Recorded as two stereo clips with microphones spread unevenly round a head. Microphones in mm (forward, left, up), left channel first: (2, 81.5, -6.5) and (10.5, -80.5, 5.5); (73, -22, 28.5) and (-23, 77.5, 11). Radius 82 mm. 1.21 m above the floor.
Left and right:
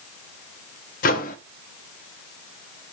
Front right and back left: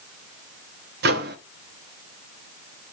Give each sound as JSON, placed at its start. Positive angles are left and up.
{"t": 1.0, "sound": "a microwave", "azimuth_deg": 135, "distance_m": 1.3}